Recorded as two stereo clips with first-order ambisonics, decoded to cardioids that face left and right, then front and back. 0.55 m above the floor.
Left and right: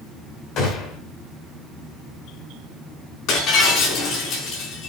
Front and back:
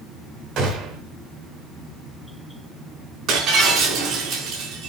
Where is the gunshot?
135° left, 3.5 m.